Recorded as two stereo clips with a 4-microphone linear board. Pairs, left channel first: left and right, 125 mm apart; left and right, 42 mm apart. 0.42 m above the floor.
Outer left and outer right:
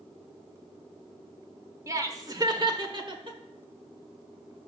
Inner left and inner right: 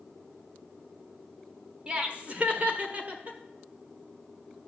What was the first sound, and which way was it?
Laughter, 25° right (ahead or behind).